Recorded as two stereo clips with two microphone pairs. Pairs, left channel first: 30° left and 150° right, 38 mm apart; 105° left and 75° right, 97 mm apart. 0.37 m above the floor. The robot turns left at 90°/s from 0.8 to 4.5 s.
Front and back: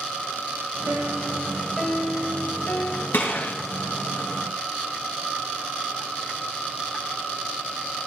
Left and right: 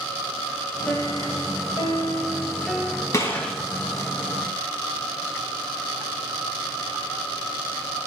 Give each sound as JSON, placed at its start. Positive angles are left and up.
{"t": 0.9, "sound": "a piano", "azimuth_deg": 175, "distance_m": 2.0}
{"t": 3.1, "sound": "a gunshot", "azimuth_deg": 45, "distance_m": 3.5}